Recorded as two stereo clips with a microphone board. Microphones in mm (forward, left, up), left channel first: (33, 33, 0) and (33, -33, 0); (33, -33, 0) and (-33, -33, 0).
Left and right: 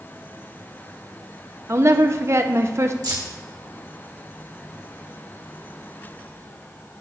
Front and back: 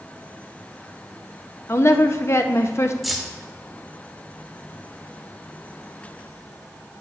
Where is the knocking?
No knocking in this recording.